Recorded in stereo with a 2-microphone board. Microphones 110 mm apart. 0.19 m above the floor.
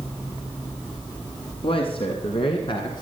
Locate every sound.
1.6 s a man speaking: 55° left (ahead or behind), 1.9 m; by 3.0 s 45° left (ahead or behind), 1.9 m